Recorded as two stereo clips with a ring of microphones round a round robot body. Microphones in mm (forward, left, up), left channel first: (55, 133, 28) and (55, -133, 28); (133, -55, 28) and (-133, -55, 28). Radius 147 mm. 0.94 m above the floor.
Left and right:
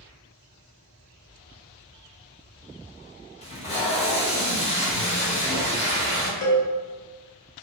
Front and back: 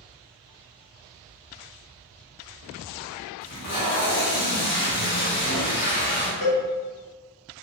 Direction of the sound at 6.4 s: 70° left.